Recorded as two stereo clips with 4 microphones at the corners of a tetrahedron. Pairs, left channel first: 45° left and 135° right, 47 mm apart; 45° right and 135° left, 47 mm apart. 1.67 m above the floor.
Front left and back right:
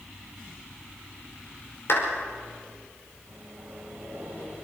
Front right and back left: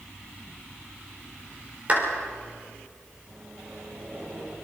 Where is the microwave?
175° left, 8.5 m.